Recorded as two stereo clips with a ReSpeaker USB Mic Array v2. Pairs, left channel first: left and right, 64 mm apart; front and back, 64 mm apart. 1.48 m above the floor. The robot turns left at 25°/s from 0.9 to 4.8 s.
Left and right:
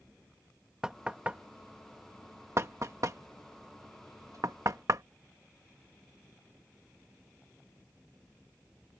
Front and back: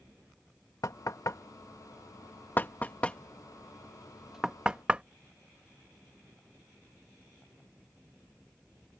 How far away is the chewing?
No chewing in this recording.